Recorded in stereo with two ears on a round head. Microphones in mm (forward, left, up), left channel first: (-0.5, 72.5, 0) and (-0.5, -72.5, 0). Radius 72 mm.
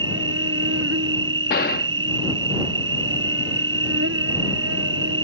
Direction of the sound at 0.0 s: 85° right.